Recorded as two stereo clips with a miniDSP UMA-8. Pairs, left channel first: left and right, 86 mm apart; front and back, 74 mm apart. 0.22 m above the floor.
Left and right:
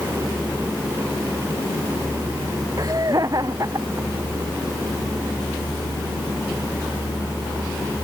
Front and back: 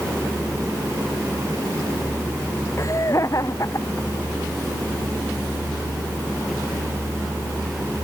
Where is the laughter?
45° right.